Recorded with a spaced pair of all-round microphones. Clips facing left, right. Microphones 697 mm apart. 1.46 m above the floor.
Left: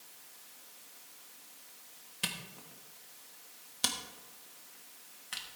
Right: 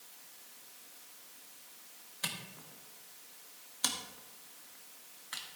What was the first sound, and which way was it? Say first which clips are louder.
A camera shutter: left 2 dB; 55° left (ahead or behind).